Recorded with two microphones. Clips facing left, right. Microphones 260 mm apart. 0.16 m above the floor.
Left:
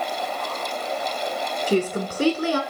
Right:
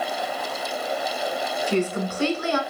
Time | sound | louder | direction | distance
1.7 | a woman speaking | left 2 dB | 40° left (ahead or behind) | 1.3 m